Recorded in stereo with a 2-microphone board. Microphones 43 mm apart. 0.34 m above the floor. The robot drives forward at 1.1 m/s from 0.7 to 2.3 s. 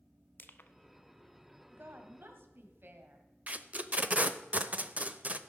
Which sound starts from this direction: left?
Crushing, at 0.4 s.